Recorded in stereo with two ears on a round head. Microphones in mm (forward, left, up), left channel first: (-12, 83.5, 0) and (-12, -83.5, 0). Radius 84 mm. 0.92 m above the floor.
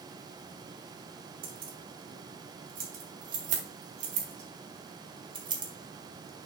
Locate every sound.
1.4 s keys jangling: 55° right (ahead or behind), 4 m; by 6.5 s 10° right (ahead or behind), 1.6 m